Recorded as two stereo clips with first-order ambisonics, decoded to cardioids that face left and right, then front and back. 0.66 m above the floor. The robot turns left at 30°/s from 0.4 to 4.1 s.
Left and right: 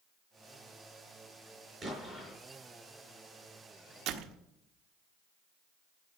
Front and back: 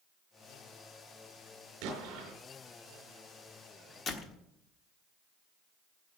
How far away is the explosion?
About 5 m.